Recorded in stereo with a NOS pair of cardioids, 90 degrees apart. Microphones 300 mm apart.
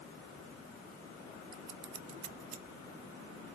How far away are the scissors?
About 0.7 m.